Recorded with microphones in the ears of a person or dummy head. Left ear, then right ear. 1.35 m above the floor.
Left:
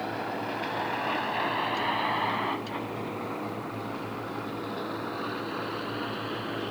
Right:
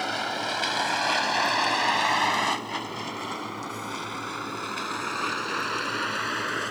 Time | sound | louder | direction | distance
0.0 | a vehicle | right 4 dB | 85° right | ?